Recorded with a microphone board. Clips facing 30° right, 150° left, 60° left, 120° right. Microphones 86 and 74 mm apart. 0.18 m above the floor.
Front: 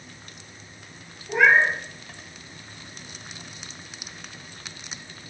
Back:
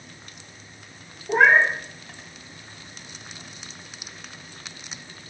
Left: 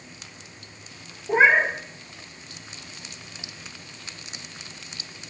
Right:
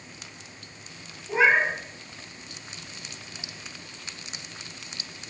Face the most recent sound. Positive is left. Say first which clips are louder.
# back 1 dB, left 3 dB
turn(degrees=105)